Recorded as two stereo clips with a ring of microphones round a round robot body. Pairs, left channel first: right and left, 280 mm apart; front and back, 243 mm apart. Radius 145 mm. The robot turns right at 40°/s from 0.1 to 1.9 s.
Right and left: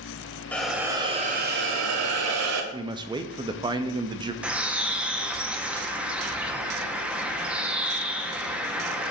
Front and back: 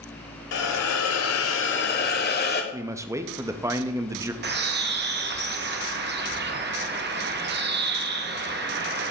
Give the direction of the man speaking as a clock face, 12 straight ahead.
8 o'clock.